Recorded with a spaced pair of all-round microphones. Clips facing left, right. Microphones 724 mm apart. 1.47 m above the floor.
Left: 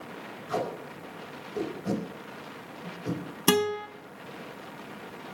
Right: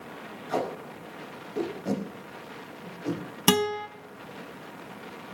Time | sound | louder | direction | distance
0.5 | tape being pulled | right 2 dB | 45° left (ahead or behind) | 4.5 m
3.5 | a guitar | even | 25° right (ahead or behind) | 0.7 m